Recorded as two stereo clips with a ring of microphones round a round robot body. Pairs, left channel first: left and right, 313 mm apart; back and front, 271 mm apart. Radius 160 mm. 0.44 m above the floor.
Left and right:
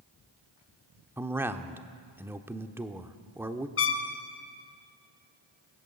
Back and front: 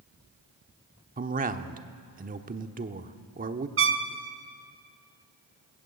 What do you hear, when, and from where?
1.2 s a man speaking: 15° right, 1.0 m
3.8 s a trumpet: 40° left, 3 m